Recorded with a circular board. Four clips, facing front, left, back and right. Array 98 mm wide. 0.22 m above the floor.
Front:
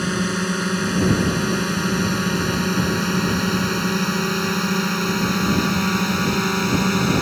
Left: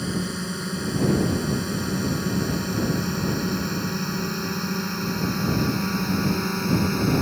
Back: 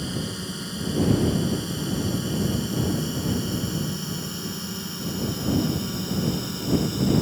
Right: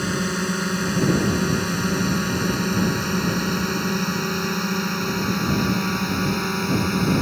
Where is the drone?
35° right; by 7.2 s 15° right.